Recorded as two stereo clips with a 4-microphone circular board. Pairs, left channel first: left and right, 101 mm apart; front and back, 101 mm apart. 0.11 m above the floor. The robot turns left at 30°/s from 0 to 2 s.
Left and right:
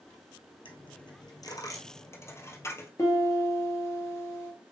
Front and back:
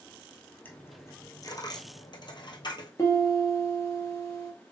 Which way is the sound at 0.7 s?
70° left.